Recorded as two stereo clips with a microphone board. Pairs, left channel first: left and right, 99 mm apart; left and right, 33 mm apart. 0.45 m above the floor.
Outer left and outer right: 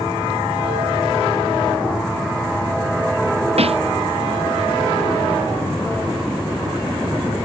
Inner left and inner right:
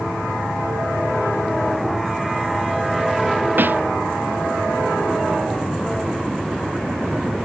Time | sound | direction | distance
3.6 | a snare drum | 85° right | ?